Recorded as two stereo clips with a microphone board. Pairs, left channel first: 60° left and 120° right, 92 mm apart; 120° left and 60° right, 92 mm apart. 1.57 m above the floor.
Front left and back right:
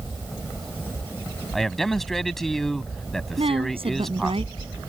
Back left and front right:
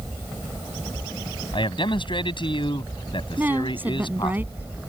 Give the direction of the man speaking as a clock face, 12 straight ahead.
7 o'clock.